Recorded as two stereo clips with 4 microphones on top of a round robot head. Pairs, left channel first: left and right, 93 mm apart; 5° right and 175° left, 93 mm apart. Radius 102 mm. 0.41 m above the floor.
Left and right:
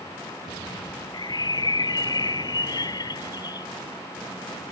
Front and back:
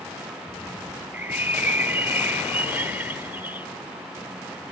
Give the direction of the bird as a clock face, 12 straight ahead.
8 o'clock.